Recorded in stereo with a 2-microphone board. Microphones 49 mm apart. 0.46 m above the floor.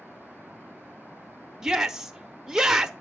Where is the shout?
10° right (ahead or behind), 0.8 m.